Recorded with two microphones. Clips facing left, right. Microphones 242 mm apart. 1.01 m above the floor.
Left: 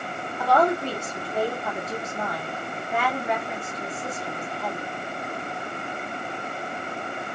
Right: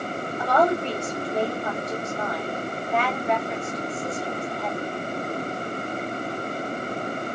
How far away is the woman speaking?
About 2.5 m.